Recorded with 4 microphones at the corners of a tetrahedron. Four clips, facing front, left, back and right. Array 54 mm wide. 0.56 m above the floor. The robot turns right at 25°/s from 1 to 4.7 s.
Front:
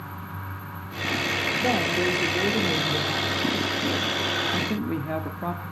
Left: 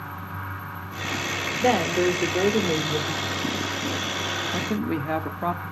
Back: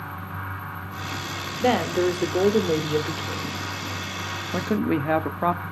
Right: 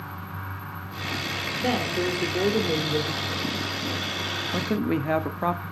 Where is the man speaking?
Straight behind, 0.9 m; by 5.6 s 175° right, 0.9 m.